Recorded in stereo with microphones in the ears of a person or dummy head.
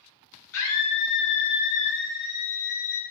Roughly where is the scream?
Left.